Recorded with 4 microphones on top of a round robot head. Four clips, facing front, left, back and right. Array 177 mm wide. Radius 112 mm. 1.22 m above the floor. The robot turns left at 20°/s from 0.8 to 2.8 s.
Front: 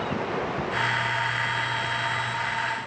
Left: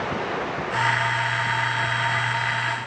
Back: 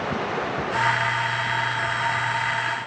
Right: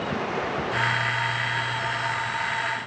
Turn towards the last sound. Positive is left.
No sound to turn to.